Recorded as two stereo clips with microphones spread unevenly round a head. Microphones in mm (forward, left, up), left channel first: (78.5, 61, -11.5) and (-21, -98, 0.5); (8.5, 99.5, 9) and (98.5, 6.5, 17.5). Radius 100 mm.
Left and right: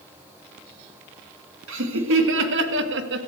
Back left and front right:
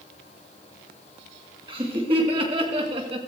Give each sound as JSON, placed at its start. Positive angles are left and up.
{"t": 1.7, "sound": "laughter", "azimuth_deg": -110, "distance_m": 2.0}